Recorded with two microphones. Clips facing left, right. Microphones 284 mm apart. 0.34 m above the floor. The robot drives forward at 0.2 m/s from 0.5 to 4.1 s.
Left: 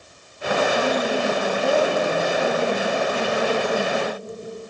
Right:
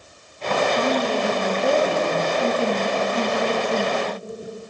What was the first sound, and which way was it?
A woman speaking, 10° left (ahead or behind).